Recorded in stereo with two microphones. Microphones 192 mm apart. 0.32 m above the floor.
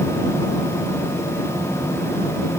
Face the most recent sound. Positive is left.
No sound to turn to.